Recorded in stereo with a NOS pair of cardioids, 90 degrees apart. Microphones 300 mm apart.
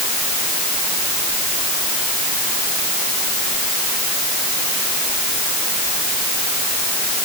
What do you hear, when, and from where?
Only background noise.